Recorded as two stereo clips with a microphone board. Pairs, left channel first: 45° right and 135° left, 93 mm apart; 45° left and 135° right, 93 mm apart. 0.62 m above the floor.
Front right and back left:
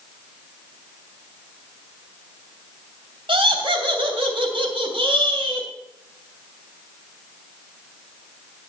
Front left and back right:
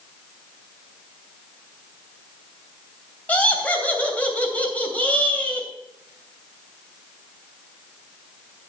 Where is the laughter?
120° left, 2.5 m.